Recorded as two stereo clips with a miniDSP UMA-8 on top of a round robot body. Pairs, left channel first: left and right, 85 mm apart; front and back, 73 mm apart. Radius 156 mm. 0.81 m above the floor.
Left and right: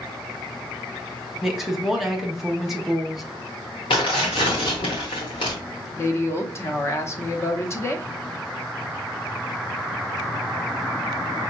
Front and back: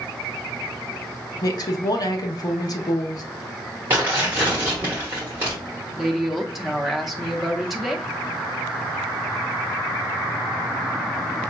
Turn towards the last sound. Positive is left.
turn(degrees=95)